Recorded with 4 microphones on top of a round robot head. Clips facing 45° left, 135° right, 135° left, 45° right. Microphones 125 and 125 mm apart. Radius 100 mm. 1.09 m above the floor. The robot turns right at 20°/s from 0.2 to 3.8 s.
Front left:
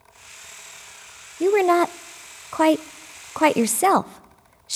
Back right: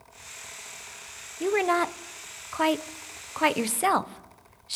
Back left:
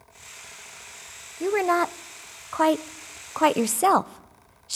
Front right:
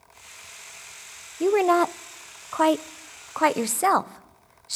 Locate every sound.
1.4 s a woman speaking: 15° left, 0.5 m; by 4.8 s 65° left, 0.5 m